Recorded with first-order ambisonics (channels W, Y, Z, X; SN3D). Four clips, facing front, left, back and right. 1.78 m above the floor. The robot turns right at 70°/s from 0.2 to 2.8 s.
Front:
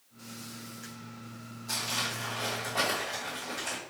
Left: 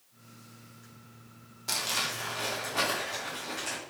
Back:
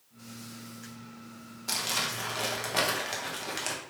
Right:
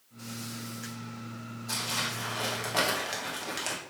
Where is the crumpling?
135° left, 1.0 m; by 3.8 s 145° right, 1.0 m.